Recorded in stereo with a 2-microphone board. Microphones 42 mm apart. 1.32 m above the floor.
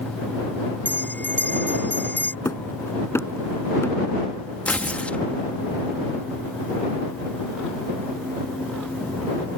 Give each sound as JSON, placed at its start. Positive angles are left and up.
{"t": 0.8, "sound": "a bell", "side_deg": 45}
{"t": 2.5, "sound": "hammering", "side_deg": 80}
{"t": 4.7, "sound": "tearing paper", "side_deg": 30}